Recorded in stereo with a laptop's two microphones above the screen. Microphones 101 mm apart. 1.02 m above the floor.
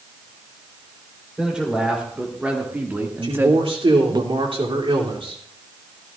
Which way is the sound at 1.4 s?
10° right (ahead or behind).